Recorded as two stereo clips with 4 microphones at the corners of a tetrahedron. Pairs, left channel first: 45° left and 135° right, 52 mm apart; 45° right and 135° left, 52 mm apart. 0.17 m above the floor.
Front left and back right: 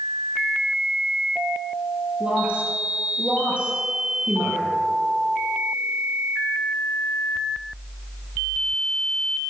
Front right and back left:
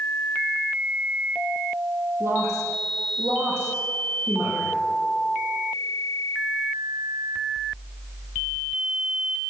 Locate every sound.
2.2 s a woman speaking: 160° left, 4 m